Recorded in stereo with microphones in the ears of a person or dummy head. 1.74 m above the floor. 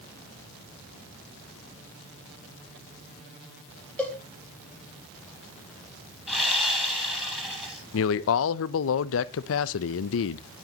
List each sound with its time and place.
4.0 s a cowbell: 5° left (ahead or behind), 3.5 m
6.3 s sawing: 5° right (ahead or behind), 9 m
7.9 s a man speaking: 75° left (ahead or behind), 0.5 m